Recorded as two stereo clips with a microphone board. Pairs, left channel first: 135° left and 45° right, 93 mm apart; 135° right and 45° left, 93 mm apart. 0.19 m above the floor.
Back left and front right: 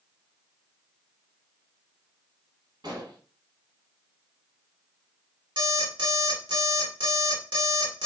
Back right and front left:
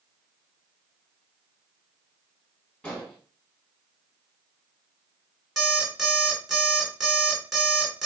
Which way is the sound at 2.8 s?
60° right.